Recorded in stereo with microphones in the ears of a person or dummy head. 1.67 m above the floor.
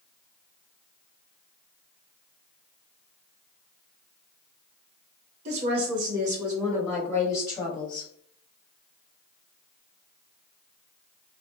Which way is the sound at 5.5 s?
50° right (ahead or behind).